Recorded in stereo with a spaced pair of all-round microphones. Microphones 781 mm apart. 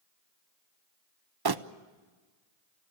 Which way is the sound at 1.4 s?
30° right (ahead or behind).